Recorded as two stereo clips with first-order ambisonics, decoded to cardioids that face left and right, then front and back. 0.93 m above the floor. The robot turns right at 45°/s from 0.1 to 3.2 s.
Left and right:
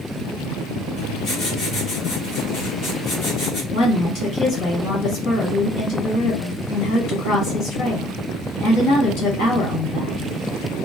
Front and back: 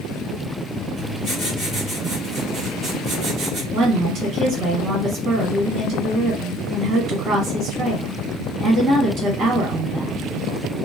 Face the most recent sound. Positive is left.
turn(degrees=130)